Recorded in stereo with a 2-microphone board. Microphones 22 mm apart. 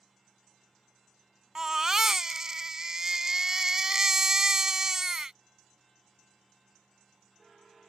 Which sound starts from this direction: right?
A baby crying, at 1.6 s.